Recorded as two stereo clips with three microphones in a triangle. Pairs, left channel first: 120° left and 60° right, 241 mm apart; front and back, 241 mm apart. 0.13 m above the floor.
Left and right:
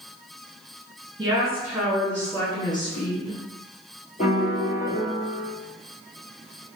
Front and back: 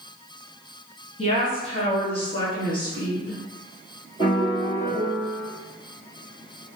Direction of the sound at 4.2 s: 65° left.